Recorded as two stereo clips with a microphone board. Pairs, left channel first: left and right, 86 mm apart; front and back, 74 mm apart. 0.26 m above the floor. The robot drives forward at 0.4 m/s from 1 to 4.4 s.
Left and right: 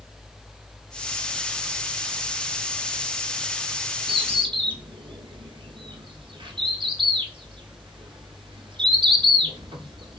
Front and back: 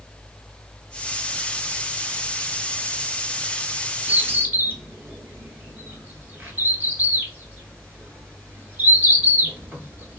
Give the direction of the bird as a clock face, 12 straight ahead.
3 o'clock.